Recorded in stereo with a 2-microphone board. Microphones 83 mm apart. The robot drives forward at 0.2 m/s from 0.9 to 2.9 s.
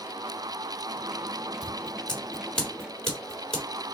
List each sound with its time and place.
1.6 s scissors: 10° left (ahead or behind), 1.5 m